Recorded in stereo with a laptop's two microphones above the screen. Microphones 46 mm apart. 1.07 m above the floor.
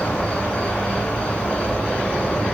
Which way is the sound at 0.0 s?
25° left (ahead or behind).